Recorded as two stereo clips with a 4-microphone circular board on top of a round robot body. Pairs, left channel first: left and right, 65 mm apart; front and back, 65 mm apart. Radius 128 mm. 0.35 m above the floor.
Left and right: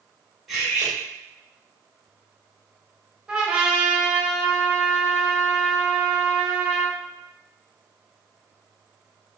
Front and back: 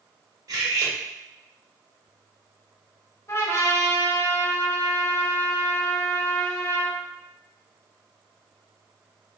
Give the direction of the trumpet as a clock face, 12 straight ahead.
1 o'clock.